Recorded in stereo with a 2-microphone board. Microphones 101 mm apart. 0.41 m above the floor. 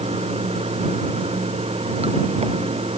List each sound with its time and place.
0.0 s running water: 90° right